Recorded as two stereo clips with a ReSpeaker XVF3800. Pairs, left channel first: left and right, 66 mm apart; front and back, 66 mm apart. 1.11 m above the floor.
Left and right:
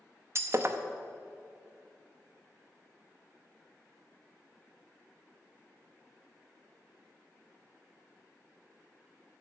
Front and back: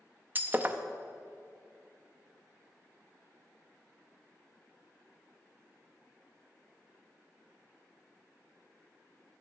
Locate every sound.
0.3 s breaking glass: 125° right, 0.6 m